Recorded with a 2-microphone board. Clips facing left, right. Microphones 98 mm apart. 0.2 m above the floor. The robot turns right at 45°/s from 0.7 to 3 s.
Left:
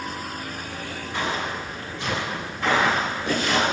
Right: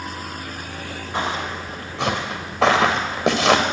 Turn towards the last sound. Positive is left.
turn(degrees=-75)  # may be behind; listen again after turning